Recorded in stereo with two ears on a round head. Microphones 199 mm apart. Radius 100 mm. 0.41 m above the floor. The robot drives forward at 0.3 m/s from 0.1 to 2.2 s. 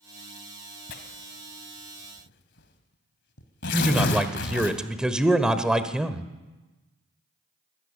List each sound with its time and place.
0.9 s tearing paper: 45° left (ahead or behind), 2.5 m; by 4.7 s 55° left (ahead or behind), 2 m
3.7 s a man speaking: 5° right (ahead or behind), 1.3 m